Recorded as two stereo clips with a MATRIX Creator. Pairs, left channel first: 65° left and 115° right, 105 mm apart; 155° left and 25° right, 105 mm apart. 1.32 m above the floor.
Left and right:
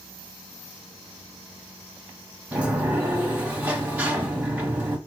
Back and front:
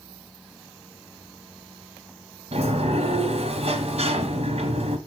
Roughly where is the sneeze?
I don't hear a sneeze.